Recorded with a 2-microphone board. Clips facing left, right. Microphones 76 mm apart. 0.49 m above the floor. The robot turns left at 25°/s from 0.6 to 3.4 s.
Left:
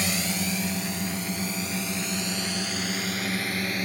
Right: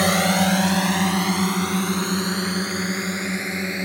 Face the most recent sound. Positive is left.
turn(degrees=-25)  # may be behind; listen again after turning